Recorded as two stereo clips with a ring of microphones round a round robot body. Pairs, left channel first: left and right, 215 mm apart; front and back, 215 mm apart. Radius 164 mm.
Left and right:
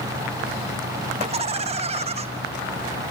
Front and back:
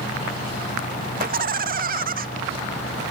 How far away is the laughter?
About 1.4 m.